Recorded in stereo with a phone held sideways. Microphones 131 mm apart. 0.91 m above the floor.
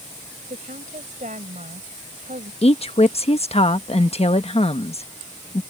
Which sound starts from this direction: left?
A woman speaking, at 2.6 s.